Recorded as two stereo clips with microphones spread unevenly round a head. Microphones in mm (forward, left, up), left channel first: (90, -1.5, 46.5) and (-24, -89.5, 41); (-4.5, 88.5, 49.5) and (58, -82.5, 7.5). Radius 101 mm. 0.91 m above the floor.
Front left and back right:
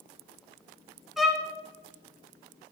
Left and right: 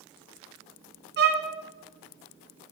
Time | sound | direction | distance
1.2 | a violin | 55° right | 2 m